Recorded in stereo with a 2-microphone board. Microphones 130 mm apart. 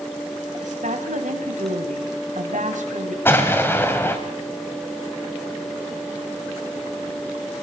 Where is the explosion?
15° left (ahead or behind), 1.9 m.